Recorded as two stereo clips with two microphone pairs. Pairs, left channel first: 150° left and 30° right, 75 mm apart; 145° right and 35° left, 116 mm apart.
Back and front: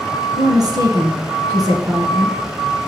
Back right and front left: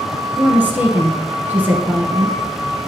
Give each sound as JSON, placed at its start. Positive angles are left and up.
{"t": 0.4, "sound": "a woman speaking", "azimuth_deg": -35, "distance_m": 1.9}